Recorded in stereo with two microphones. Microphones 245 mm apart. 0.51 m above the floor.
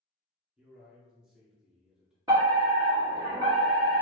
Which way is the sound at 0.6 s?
5° right (ahead or behind).